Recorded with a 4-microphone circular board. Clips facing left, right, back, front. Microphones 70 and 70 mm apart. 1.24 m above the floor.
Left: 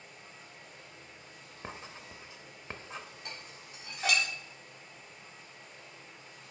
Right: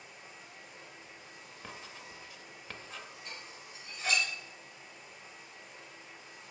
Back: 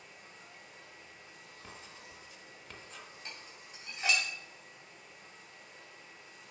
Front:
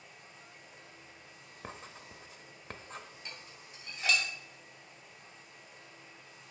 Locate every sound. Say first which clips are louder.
0.0 s running water: even, even; 170° right, 2.5 m
1.6 s writing: left 3 dB, front 6 dB; 30° left, 0.7 m
3.2 s dishes clattering: even, even; 120° left, 2.5 m